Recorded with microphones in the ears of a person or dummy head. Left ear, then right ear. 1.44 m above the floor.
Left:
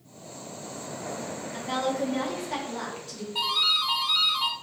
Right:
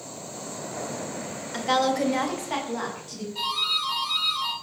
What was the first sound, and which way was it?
A woman speaking, 60° right (ahead or behind).